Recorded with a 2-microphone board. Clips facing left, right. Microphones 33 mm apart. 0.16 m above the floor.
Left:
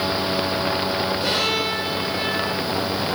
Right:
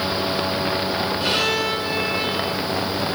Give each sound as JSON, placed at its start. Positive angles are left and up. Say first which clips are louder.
{"t": 1.2, "sound": "a violin", "louder": "right 1 dB", "side_deg": -50, "distance_m": 4.0}